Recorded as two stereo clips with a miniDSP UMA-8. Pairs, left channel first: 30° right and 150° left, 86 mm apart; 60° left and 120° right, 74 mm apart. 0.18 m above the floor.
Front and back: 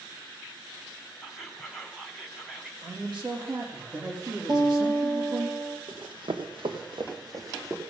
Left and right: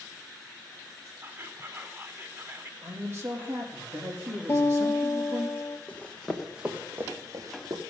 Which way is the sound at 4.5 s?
115° left.